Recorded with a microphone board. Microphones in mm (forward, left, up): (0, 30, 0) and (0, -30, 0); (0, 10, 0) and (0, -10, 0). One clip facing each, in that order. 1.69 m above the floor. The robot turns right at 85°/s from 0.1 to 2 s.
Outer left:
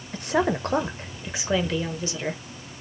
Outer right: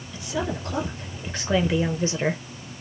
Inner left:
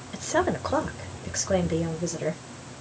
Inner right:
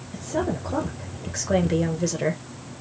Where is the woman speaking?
65° left, 1.0 m; by 2.4 s 135° right, 1.0 m.